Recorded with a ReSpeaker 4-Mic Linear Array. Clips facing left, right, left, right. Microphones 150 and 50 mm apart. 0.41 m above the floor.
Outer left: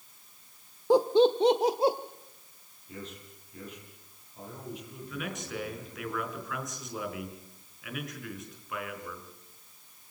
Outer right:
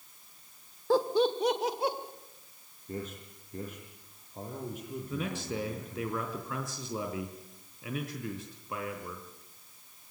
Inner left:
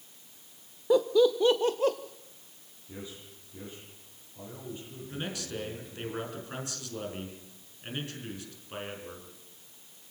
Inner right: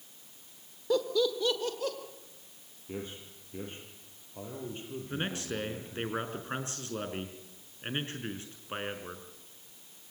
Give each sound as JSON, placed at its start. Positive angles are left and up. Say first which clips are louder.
{"t": 0.9, "sound": "laughter", "louder": "outer left 4 dB, inner left 6 dB", "side_deg": 20, "distance_m": 1.0}
{"t": 2.9, "sound": "a man speaking", "louder": "outer right 5 dB, inner right 3 dB", "side_deg": -50, "distance_m": 10.0}
{"t": 5.1, "sound": "a man speaking", "louder": "outer right 2 dB, inner right 2 dB", "side_deg": -30, "distance_m": 5.0}